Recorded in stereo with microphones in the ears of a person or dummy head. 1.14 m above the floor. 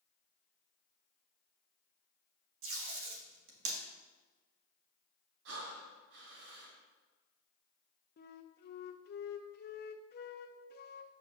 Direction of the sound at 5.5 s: 55° right (ahead or behind).